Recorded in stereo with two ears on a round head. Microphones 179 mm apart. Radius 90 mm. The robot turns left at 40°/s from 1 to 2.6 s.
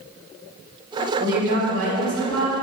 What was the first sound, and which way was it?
A woman speaking, 75° right.